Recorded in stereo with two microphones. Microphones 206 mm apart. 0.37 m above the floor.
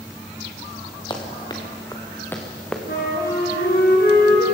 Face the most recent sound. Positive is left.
turn(degrees=55)  # may be behind; listen again after turning